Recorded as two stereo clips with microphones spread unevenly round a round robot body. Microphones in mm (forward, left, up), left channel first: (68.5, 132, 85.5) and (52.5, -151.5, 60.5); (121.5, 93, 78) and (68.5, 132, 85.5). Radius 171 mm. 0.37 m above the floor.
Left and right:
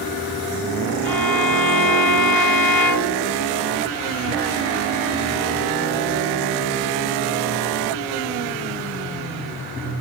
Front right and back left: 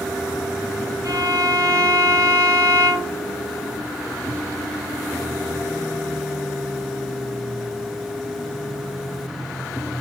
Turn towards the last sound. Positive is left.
turn(degrees=115)